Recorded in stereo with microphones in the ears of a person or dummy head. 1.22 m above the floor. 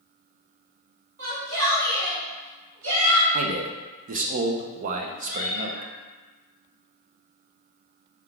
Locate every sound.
1.2 s a shout: 60° right (ahead or behind), 1.1 m; by 3.2 s 75° right (ahead or behind), 2.5 m
3.3 s a man speaking: 40° right (ahead or behind), 0.5 m
5.2 s a cat meowing: 45° right (ahead or behind), 1.4 m